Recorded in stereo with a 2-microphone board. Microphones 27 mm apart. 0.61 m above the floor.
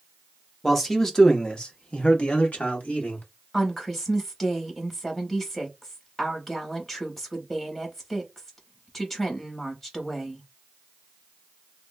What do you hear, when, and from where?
0.6 s a man speaking: 5° left (ahead or behind), 0.9 m; by 3.3 s 65° left (ahead or behind), 1.5 m
3.5 s a woman speaking: 15° left (ahead or behind), 1.5 m